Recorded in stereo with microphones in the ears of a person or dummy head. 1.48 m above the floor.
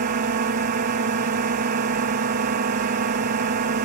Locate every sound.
0.0 s a drone: 50° right (ahead or behind)